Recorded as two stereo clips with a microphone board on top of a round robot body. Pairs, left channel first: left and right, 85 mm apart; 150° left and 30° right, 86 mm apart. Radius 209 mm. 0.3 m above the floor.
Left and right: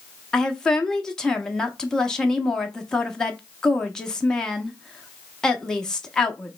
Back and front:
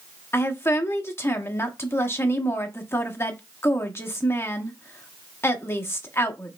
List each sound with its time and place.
0.3 s a woman speaking: 165° left, 1.3 m